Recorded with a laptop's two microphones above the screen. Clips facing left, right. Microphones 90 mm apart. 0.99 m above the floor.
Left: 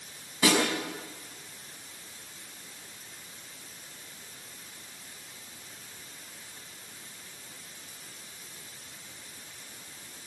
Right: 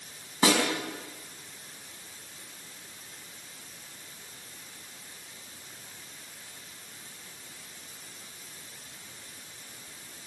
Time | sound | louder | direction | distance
0.4 | a snare drum | right 1 dB | 35° right (ahead or behind) | 4.5 m